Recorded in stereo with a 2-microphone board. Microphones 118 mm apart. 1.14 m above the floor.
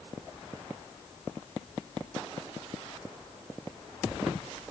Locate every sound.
Only background noise.